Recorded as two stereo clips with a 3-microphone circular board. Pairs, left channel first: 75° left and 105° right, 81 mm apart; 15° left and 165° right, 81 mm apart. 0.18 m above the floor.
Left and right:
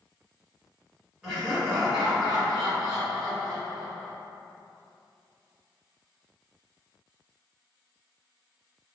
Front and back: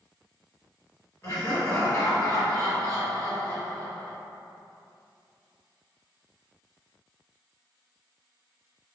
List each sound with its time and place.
1.2 s laughter: 25° right, 1.5 m